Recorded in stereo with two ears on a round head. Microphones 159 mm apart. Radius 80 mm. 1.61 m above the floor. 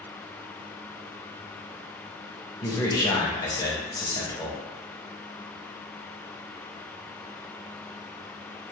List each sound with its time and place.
2.6 s a man speaking: 20° left (ahead or behind), 0.8 m